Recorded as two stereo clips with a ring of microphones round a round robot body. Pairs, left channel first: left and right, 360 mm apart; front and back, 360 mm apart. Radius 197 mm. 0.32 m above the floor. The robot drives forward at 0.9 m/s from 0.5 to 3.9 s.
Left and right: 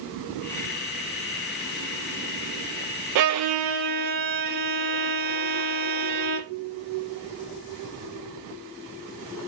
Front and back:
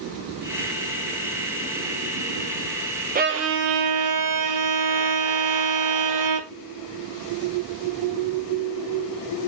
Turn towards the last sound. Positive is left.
turn(degrees=-150)